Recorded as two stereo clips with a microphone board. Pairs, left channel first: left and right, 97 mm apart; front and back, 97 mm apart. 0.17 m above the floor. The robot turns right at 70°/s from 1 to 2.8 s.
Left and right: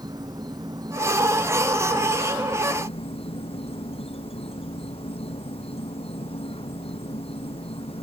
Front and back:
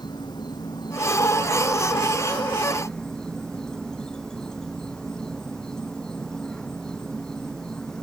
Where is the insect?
45° right; by 8.0 s 85° left.